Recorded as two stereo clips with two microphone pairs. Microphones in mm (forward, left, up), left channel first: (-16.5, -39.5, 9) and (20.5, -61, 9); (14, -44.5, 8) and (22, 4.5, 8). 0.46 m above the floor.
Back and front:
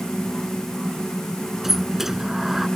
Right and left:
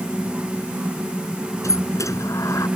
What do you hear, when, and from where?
1.6 s a sliding door: 110° right